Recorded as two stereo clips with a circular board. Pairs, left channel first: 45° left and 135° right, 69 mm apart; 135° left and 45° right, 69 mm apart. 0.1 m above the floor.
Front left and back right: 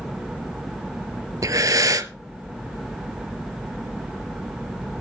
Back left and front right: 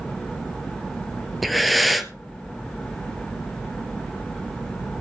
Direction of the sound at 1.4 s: 135° right.